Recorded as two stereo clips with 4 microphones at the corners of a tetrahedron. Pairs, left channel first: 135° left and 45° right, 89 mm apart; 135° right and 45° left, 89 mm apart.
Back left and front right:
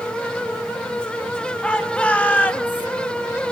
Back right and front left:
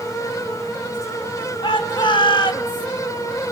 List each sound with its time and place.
1.6 s a shout: 150° right, 3.5 m; by 2.9 s 165° right, 2.5 m